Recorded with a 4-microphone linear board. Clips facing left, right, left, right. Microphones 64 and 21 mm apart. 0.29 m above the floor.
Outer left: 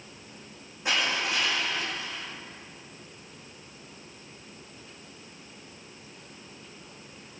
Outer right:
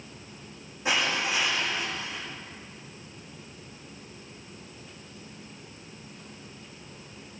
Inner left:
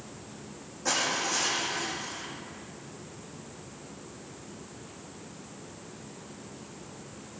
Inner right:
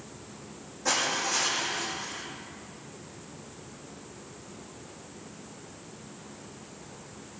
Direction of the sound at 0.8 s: Centre (ahead or behind).